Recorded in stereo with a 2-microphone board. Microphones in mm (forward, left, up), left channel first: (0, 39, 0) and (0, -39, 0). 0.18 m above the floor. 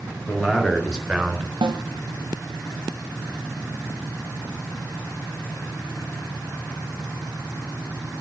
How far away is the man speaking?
About 3.5 m.